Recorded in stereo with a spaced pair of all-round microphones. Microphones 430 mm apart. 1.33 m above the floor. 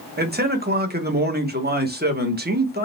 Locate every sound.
0.2 s a man speaking: 25° right (ahead or behind), 1.1 m